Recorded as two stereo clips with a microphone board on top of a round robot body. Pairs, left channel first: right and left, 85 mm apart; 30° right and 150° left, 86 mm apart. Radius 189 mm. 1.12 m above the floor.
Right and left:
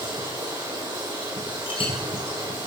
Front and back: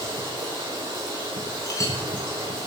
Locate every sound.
0.0 s running water: 115° left, 7 m
1.7 s a clink: 85° right, 2 m